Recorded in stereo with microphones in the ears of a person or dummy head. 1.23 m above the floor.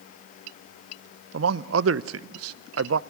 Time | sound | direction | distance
1.3 | a man speaking | 80° right | 0.6 m